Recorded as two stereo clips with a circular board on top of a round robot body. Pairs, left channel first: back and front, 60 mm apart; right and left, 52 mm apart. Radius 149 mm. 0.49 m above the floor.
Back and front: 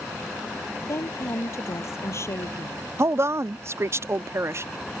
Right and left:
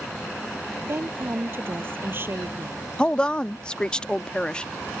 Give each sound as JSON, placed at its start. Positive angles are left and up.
{"t": 0.8, "sound": "a woman speaking", "azimuth_deg": 135}
{"t": 3.0, "sound": "a woman speaking", "azimuth_deg": -25}